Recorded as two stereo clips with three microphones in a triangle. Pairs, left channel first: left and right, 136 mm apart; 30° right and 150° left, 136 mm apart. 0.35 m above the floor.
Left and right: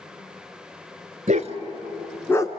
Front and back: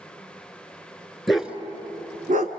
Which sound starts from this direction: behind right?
A dog barking, at 1.3 s.